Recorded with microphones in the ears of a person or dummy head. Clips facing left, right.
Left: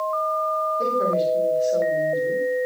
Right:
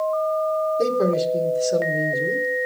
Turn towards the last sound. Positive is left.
turn(degrees=-75)  # may be behind; listen again after turning